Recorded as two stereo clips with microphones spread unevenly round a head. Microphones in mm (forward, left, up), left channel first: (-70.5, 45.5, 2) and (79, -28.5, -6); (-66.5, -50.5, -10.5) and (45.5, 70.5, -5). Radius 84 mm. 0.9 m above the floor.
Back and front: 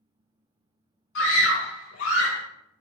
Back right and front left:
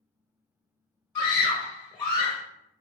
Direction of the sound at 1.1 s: 150° left.